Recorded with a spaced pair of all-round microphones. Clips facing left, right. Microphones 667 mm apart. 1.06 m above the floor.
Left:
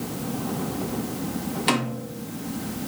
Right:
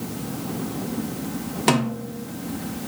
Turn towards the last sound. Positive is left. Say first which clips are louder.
# right 7 dB
turn(degrees=-65)  # may be behind; listen again after turning